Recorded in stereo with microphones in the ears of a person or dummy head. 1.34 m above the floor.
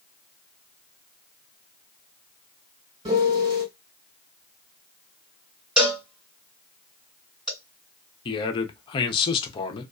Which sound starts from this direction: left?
A man speaking, at 8.2 s.